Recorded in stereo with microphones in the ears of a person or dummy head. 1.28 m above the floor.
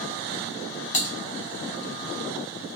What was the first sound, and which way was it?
Typing on a keyboard, 35° left (ahead or behind).